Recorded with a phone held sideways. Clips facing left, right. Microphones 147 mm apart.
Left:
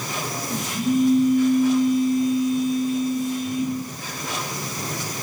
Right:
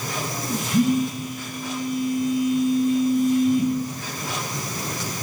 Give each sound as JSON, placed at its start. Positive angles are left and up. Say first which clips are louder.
{"t": 0.7, "sound": "a phone buzzing", "louder": "left 3 dB", "side_deg": -60, "distance_m": 10.0}